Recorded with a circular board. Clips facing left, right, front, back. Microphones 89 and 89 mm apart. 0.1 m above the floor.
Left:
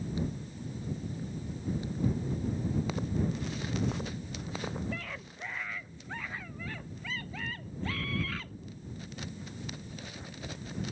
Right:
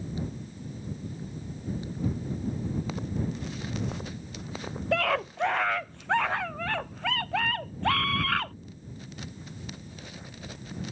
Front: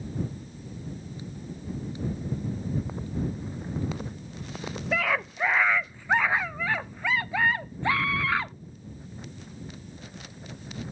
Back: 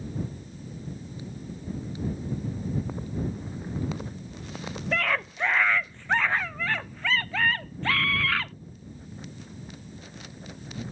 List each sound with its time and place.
4.9 s a scream: 85° right; by 8.5 s 70° right